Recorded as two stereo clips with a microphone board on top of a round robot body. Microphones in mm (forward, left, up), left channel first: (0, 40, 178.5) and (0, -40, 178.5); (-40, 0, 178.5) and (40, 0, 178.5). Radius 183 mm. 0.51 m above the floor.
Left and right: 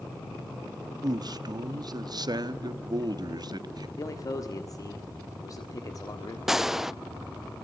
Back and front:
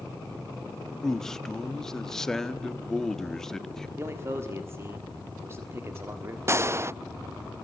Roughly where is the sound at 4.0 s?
Ahead left.